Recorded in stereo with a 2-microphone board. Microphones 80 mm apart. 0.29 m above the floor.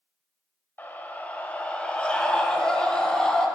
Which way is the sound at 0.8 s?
25° left (ahead or behind).